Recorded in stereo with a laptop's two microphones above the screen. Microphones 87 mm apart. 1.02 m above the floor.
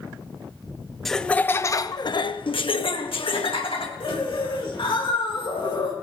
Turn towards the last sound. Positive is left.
turn(degrees=70)  # may be behind; listen again after turning